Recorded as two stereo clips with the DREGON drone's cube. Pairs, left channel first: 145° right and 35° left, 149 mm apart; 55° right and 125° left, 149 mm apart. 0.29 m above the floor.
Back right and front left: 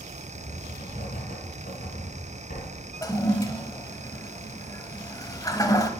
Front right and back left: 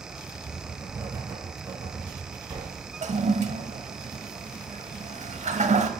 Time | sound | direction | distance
0.3 | writing | 165° right | 2.5 m
3.0 | a toilet flushing | 150° left | 0.8 m